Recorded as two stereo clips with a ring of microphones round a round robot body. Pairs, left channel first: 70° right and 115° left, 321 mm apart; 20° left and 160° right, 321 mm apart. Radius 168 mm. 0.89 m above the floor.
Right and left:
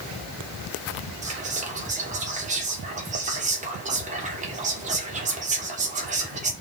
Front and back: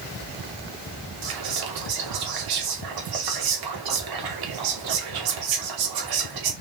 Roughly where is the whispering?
Behind.